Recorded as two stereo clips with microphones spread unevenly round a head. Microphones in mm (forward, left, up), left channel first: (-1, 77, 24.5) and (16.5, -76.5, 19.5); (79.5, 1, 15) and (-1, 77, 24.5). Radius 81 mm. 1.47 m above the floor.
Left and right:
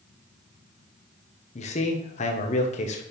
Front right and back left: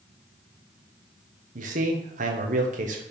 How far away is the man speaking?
About 1.0 m.